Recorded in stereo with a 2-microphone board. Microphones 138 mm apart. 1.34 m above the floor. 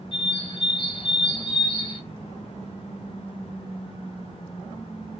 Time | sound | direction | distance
0.1 | a bird | 40° left (ahead or behind) | 0.7 m